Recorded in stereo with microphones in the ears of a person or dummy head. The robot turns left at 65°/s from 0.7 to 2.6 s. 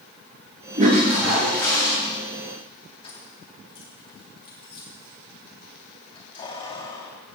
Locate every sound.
0.8 s a toilet flushing: 135° right, 9 m; by 2.0 s 150° left, 9 m
3.0 s keys jangling: 25° left (ahead or behind), 2.5 m